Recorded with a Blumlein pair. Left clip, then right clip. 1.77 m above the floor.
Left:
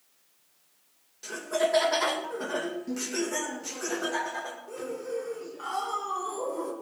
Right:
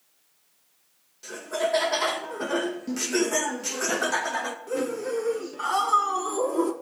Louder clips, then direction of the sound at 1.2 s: Even; 10° left.